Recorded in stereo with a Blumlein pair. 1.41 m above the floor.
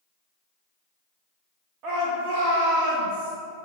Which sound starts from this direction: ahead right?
A shout, at 1.8 s.